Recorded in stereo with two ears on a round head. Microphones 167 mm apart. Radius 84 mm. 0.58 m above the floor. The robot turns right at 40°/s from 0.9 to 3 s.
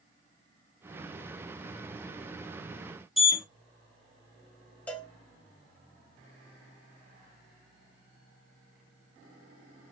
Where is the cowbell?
10° left (ahead or behind), 1.0 m.